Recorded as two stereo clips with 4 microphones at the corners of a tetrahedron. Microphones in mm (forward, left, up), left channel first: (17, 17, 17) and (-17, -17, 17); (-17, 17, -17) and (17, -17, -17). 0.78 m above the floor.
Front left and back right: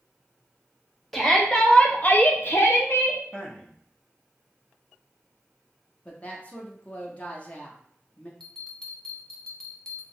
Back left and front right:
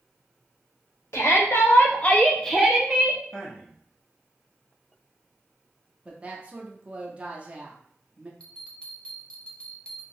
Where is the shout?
130° left, 0.9 m; by 3.2 s 20° left, 0.8 m.